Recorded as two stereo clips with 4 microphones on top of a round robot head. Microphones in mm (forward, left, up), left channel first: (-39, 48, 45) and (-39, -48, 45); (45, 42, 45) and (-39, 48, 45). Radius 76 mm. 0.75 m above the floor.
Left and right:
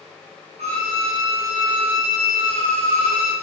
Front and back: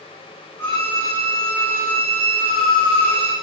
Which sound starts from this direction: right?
A violin, at 0.6 s.